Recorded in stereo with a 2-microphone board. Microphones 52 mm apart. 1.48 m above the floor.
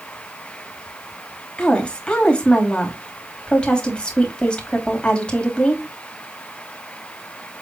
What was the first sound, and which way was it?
A woman speaking, 20° left (ahead or behind).